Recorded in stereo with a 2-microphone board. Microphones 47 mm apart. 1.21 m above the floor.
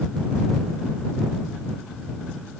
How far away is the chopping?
No chopping in this recording.